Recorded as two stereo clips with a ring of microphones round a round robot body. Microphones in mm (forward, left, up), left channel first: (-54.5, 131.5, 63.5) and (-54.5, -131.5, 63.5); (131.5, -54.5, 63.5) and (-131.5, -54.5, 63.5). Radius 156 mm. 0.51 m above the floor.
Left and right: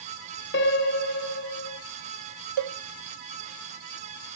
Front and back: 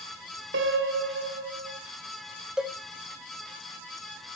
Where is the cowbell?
95° right, 0.6 m.